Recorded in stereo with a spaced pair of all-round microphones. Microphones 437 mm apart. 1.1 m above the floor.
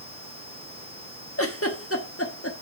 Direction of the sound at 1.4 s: 30° left (ahead or behind).